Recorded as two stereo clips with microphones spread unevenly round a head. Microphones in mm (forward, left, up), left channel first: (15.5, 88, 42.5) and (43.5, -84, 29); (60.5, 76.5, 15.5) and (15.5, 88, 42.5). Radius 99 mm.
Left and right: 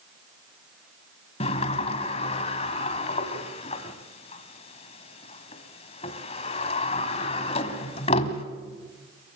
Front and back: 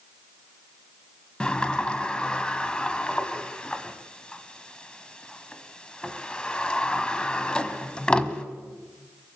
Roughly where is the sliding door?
Left.